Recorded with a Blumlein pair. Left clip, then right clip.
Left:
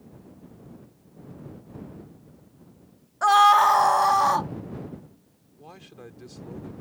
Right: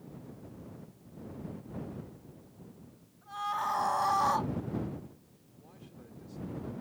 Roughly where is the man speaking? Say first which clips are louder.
Left 10 dB; ahead left.